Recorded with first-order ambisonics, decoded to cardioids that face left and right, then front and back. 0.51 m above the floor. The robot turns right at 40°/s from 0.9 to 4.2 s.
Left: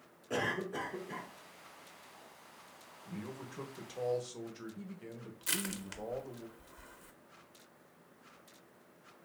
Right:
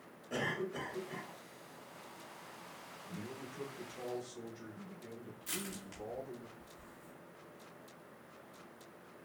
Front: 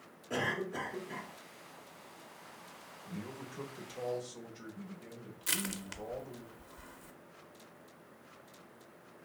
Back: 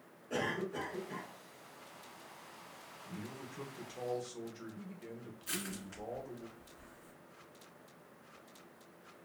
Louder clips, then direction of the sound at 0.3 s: Left 2 dB, front 2 dB; 60° left.